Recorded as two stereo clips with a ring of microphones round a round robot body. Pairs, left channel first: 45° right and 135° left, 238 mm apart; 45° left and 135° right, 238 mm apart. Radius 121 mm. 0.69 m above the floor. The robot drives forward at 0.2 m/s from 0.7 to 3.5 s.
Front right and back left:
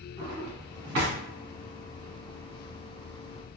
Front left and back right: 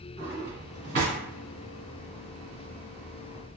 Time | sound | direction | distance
0.2 | a drawer | 175° left | 1.5 m